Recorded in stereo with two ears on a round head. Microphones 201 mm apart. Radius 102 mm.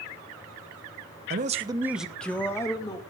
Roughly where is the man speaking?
Right.